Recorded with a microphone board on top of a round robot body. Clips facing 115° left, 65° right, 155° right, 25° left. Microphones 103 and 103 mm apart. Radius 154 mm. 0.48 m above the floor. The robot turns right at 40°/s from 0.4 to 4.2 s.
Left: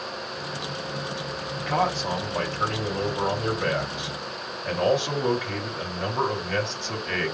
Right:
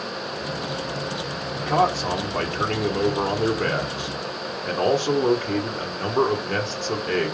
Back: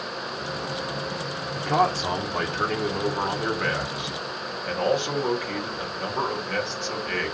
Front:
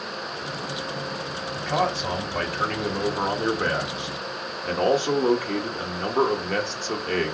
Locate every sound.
1.6 s a man speaking: 130° right, 1.8 m; by 7.3 s 20° right, 1.8 m